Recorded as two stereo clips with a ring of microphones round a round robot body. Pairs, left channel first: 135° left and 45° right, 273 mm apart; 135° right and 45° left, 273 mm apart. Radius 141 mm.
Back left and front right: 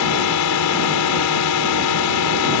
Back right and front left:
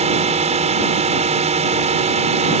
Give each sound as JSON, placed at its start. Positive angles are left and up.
{"t": 0.0, "sound": "a drone", "azimuth_deg": 110}